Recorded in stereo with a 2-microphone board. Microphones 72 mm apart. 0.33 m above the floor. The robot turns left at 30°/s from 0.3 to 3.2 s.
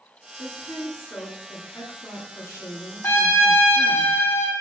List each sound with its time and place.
0.4 s a woman speaking: 160° right, 3.5 m; by 4.0 s 115° left, 3.5 m
3.0 s a trumpet: 35° left (ahead or behind), 2.0 m; by 4.5 s 40° left (ahead or behind), 2.0 m